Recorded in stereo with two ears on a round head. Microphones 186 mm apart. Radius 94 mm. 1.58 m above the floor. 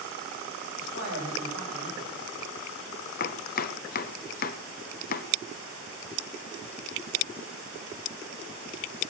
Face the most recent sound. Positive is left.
turn(degrees=40)  # may be behind; listen again after turning